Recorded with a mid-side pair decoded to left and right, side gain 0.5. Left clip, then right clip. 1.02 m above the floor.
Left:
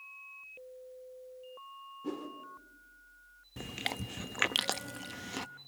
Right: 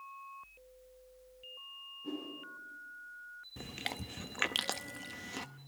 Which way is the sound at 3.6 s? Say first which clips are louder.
Left 4 dB; 25° left.